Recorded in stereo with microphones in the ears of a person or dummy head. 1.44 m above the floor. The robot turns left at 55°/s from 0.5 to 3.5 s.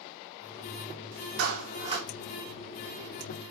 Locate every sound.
1.4 s a clap: 120° right, 3 m; by 2.1 s 160° right, 3 m